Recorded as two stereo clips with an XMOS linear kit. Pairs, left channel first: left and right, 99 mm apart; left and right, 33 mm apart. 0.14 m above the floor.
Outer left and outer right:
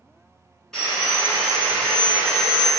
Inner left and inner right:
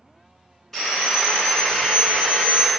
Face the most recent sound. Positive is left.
turn(degrees=5)  # may be behind; listen again after turning